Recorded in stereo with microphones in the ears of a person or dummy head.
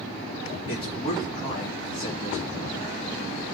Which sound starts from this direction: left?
A man speaking, at 0.7 s.